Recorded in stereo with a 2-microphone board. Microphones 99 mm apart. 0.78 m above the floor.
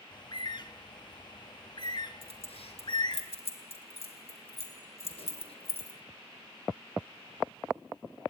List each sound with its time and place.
0.1 s a bird: 50° left (ahead or behind), 1.6 m
2.2 s keys jangling: 80° left, 2.5 m